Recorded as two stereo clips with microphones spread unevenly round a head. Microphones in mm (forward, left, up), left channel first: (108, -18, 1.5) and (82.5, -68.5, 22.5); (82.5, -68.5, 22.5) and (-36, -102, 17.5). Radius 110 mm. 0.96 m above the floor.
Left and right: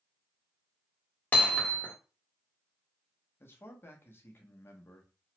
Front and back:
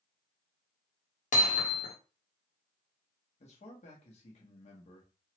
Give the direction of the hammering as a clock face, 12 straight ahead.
12 o'clock.